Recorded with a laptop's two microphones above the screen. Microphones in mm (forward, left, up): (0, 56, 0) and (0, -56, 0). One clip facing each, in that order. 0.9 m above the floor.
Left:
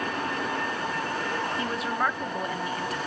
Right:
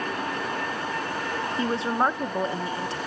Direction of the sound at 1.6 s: 30° right (ahead or behind).